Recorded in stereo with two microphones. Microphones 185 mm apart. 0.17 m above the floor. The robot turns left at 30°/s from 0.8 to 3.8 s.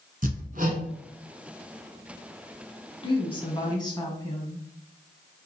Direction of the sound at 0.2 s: 50° right (ahead or behind).